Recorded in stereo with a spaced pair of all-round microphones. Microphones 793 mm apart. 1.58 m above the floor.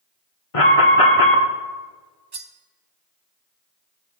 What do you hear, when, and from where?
0.5 s an alarm: 40° left (ahead or behind), 1.4 m
2.3 s cutlery clinking: 30° right (ahead or behind), 0.7 m